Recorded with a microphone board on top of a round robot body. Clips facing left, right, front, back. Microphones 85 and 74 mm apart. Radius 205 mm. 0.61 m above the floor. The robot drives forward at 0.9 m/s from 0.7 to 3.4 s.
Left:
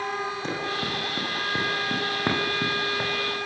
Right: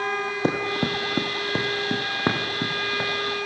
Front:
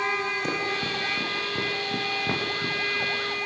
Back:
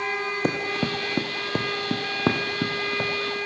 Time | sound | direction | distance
0.4 | running footsteps | 135° right | 3.5 m